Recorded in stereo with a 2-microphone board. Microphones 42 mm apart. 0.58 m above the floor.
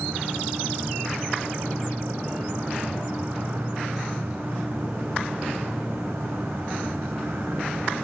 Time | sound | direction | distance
0.0 | an insect | 70° right (ahead or behind) | 1.3 m